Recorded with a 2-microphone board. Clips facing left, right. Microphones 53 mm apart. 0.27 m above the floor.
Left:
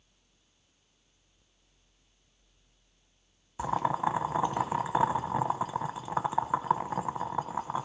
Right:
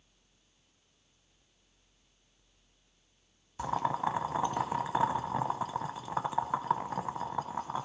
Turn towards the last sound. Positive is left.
turn(degrees=15)  # may be behind; listen again after turning